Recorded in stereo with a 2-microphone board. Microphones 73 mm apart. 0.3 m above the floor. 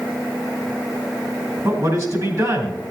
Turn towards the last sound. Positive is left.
turn(degrees=-50)  # may be behind; listen again after turning